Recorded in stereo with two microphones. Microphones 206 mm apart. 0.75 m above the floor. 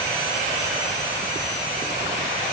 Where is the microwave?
I don't hear a microwave.